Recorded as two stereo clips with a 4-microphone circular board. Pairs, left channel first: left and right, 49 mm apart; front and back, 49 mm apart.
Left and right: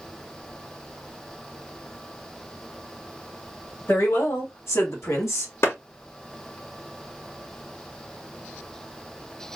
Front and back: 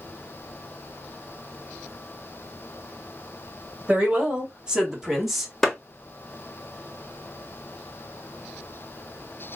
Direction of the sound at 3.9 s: 120° left.